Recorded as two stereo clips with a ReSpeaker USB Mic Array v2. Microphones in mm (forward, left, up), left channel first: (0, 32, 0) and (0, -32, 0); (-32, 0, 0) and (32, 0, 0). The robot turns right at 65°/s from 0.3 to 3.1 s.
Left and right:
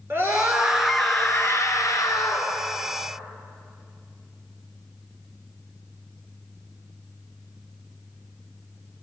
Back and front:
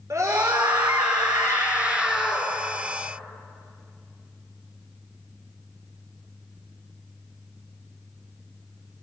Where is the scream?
40° right, 5 m; by 2.5 s 105° left, 5 m.